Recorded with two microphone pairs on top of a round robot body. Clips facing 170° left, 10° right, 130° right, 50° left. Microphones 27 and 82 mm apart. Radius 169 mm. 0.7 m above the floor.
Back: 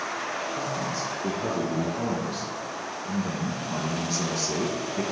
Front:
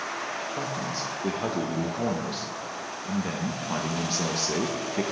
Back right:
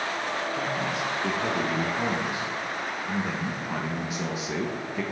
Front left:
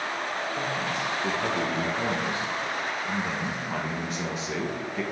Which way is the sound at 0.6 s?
50° right.